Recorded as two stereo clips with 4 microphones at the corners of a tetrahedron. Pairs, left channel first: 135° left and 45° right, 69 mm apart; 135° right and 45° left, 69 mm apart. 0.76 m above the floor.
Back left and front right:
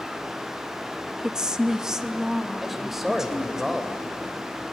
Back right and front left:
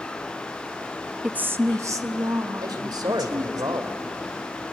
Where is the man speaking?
40° left, 2.5 m.